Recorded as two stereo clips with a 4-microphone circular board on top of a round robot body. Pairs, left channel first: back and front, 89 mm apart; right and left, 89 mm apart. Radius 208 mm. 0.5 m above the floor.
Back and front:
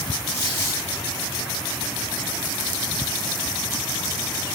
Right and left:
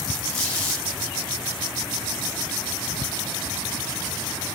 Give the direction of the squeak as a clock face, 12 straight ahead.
1 o'clock.